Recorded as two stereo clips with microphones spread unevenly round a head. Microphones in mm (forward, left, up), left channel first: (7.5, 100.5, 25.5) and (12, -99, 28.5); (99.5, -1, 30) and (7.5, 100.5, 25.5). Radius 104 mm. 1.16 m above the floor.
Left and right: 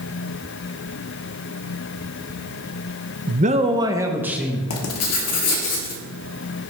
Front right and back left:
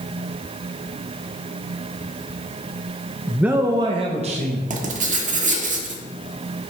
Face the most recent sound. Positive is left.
turn(degrees=105)